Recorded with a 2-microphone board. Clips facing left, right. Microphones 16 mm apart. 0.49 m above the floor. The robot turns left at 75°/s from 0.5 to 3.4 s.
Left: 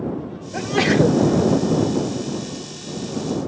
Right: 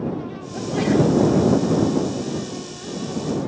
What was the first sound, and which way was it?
A sneeze, 105° left.